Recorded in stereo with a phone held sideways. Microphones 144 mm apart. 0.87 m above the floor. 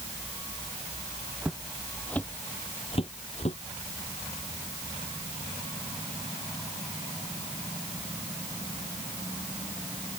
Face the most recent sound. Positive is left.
turn(degrees=50)  # may be behind; listen again after turning